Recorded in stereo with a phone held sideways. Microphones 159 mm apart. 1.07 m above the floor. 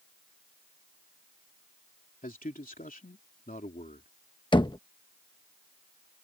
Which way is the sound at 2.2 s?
60° left (ahead or behind).